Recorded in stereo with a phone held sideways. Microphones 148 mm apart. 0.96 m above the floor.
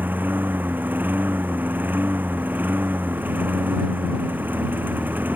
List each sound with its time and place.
0.0 s a lawn mower: 15° right (ahead or behind)